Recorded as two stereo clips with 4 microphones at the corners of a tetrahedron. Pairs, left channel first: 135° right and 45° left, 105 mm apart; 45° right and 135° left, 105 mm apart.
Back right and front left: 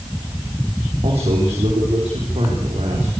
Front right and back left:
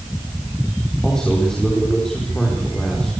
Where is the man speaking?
40° left, 5.5 m.